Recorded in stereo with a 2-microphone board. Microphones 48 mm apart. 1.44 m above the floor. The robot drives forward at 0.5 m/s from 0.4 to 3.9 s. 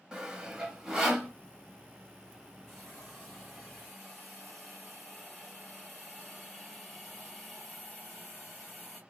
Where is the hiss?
Centre (ahead or behind), 1.8 m.